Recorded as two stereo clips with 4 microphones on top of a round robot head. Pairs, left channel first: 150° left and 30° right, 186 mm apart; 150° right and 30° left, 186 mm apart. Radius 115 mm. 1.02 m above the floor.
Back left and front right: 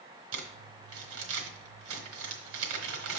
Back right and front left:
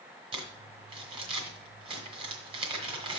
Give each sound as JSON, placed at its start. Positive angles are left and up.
{"t": 0.3, "sound": "crumpling", "azimuth_deg": -30, "distance_m": 1.3}